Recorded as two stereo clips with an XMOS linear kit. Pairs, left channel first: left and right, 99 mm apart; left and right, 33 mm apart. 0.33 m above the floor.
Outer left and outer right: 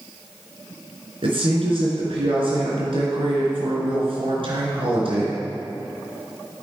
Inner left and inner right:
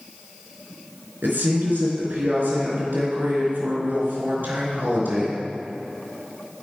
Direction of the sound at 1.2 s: 75° right (ahead or behind).